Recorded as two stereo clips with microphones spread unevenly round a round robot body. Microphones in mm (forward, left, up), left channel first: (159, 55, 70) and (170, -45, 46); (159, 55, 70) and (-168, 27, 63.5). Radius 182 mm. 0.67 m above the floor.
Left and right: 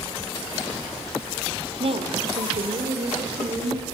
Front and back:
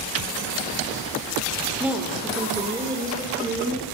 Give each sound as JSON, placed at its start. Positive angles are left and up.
{"t": 1.8, "sound": "a woman speaking", "azimuth_deg": -90, "distance_m": 2.0}